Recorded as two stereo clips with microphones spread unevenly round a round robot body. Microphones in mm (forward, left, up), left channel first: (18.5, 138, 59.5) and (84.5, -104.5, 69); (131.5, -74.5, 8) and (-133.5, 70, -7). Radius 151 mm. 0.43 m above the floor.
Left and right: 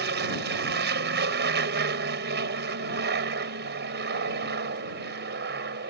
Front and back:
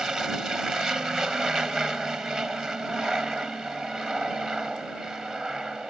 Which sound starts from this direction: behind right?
An aircraft, at 0.0 s.